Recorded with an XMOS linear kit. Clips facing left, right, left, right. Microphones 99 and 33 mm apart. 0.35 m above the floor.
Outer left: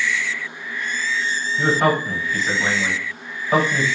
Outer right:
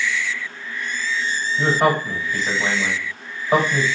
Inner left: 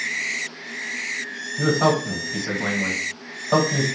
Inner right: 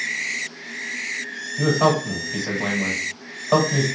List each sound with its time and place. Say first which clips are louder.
1.6 s a man speaking: even, inner right 1 dB; 25° right (ahead or behind), 1.5 m